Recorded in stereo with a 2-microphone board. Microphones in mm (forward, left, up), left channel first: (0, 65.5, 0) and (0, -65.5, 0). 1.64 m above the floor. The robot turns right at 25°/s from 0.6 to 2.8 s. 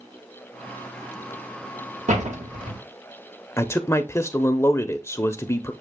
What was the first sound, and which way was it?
A door slam, 70° right (ahead or behind).